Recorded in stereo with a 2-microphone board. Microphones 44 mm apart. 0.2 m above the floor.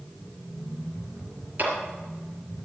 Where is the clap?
50° right (ahead or behind), 3.5 m.